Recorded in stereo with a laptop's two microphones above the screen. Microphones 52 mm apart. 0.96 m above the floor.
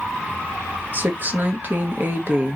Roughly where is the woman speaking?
Right.